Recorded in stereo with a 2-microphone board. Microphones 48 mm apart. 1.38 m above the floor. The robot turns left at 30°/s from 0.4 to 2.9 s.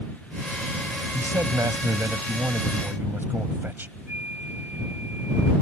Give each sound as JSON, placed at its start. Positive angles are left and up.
{"t": 1.1, "sound": "a man speaking", "azimuth_deg": -80}
{"t": 4.1, "sound": "a flute", "side_deg": -40}